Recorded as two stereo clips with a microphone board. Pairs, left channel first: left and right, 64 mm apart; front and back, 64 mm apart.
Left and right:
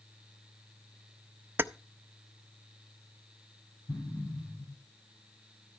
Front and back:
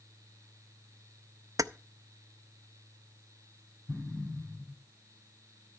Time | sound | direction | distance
1.6 | keys jangling | 145° right | 0.5 m
3.9 | an explosion | 70° left | 7 m